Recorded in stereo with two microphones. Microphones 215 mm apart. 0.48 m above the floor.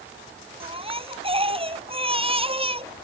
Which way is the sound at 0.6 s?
25° right (ahead or behind).